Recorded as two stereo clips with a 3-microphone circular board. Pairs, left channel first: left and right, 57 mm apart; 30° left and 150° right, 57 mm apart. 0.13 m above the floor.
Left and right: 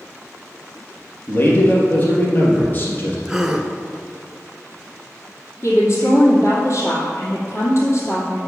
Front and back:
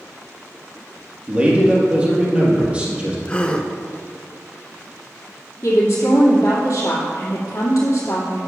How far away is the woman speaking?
About 2.5 m.